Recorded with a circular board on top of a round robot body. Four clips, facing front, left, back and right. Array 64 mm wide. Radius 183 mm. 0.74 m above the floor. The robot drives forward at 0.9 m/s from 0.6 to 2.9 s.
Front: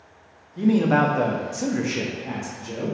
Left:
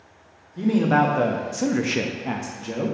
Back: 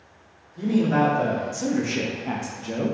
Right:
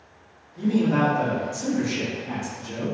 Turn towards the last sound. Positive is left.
turn(degrees=135)